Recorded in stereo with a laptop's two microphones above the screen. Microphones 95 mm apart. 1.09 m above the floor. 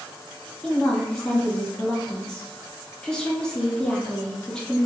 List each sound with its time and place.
0.6 s a woman speaking: 5° left (ahead or behind), 1.1 m